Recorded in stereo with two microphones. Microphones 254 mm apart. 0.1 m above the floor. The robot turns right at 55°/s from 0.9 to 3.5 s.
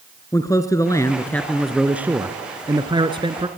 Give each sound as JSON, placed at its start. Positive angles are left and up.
{"t": 0.3, "sound": "a man speaking", "side_deg": 15, "distance_m": 1.3}